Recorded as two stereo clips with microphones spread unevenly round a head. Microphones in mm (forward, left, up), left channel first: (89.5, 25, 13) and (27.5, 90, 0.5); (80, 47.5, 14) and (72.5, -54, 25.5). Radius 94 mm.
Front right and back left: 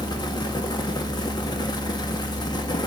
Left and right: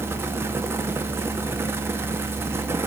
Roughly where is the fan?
Ahead right.